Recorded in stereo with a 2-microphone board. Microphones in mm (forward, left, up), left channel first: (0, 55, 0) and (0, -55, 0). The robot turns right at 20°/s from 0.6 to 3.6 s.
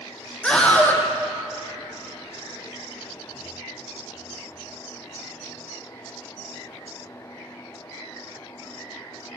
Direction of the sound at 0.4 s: 10° left (ahead or behind).